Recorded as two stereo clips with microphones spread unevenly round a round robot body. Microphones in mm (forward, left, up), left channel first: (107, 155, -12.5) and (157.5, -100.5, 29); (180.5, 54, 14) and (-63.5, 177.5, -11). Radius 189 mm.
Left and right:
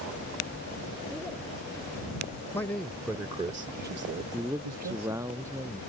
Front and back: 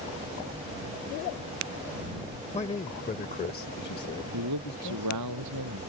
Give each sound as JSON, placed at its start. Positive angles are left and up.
{"t": 2.5, "sound": "a man speaking", "azimuth_deg": 35}
{"t": 4.3, "sound": "a man speaking", "azimuth_deg": -160}